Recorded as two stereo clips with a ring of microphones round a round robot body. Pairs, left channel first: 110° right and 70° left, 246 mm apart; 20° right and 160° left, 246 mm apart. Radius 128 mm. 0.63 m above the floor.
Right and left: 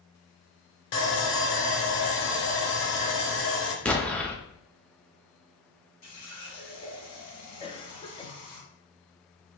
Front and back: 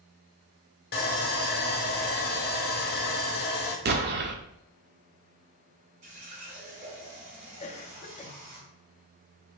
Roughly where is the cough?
Ahead right.